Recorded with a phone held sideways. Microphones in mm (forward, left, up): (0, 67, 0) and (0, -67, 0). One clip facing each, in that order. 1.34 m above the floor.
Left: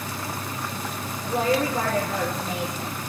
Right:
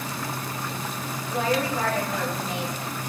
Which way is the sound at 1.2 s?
40° left (ahead or behind).